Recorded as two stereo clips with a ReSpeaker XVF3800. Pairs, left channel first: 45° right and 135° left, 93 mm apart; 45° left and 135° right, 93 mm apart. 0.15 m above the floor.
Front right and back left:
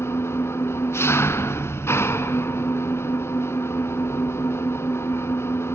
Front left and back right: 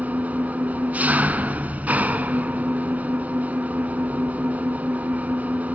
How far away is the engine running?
About 1.0 m.